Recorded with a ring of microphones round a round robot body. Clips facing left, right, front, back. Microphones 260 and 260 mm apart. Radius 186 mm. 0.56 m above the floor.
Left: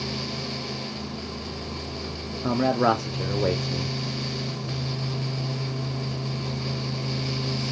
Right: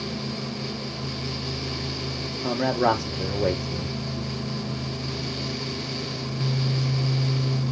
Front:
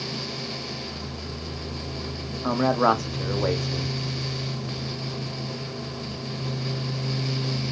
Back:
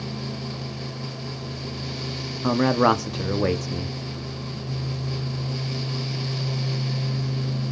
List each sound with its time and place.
2.4 s a man speaking: 175° left, 0.8 m